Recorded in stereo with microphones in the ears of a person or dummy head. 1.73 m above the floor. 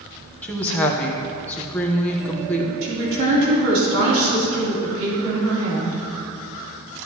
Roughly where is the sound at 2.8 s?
Right.